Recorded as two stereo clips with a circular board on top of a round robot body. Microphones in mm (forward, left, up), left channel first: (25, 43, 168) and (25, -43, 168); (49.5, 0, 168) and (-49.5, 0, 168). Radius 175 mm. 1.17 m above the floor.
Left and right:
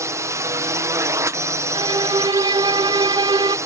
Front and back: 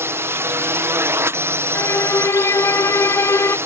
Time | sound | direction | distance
0.0 | a drone | 125° right | ?
1.8 | a violin | 60° right | ?